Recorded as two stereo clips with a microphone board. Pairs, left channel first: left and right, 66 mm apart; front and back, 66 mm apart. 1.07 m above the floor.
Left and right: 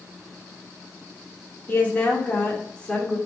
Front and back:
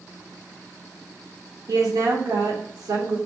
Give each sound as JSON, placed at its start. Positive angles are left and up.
{"t": 1.7, "sound": "a woman speaking", "azimuth_deg": 150, "distance_m": 2.5}